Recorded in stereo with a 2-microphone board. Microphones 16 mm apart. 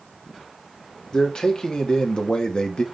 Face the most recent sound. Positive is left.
turn(degrees=65)  # may be behind; listen again after turning